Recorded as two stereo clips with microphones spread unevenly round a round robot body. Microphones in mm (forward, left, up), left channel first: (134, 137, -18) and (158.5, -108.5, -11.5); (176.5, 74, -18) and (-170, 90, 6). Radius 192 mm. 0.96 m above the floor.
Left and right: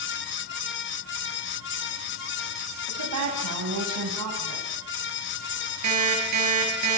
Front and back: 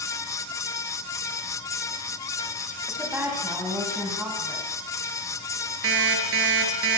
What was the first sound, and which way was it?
A woman speaking, 95° right.